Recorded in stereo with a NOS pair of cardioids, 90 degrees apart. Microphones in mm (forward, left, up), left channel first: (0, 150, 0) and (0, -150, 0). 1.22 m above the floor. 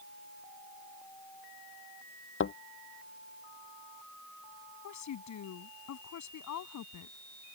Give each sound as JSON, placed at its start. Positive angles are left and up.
{"t": 2.4, "sound": "a thud", "azimuth_deg": 40}
{"t": 4.8, "sound": "a woman speaking", "azimuth_deg": 70}